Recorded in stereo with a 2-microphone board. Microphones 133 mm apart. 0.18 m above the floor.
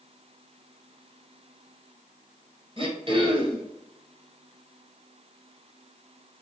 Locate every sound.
2.8 s throat clearing: 45° right (ahead or behind), 1.2 m